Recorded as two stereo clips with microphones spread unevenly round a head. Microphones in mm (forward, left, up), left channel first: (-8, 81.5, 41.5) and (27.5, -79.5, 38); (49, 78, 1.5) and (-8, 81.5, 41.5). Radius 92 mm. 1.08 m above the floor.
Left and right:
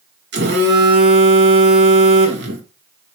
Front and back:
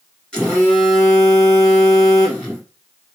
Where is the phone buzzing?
70° right, 1.8 m.